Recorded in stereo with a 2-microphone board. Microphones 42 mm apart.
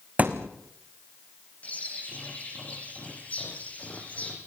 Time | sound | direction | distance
0.2 | a thud | 35° right (ahead or behind) | 2.5 m
1.6 | a bird | 35° left (ahead or behind) | 5.5 m